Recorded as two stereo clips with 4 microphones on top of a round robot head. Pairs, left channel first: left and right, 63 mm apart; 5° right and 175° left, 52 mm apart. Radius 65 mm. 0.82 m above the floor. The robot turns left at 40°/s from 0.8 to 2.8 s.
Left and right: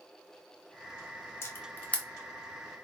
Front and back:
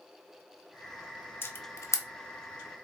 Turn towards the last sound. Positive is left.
turn(degrees=-15)